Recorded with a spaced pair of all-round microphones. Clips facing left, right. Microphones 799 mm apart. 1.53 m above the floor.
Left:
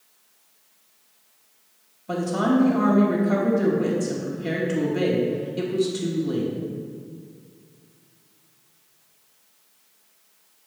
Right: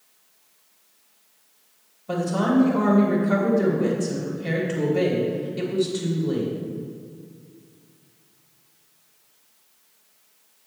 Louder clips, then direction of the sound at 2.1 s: Even; 5° right (ahead or behind).